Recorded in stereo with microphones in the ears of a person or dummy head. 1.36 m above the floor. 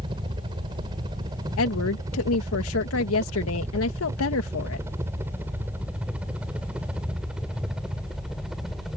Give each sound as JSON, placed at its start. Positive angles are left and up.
{"t": 0.0, "sound": "a helicopter", "side_deg": -25}
{"t": 1.6, "sound": "a woman speaking", "side_deg": 85}